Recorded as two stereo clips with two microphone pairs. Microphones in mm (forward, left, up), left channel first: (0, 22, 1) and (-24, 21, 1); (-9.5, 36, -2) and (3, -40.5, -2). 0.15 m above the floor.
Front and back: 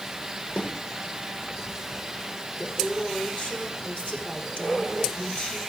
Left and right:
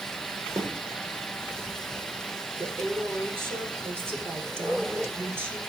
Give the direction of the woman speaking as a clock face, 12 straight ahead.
1 o'clock.